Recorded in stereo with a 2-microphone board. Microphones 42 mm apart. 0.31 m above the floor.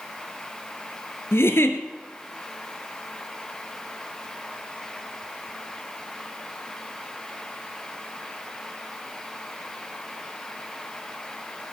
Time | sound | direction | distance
1.3 | a giggle | 70° left (ahead or behind) | 1.2 m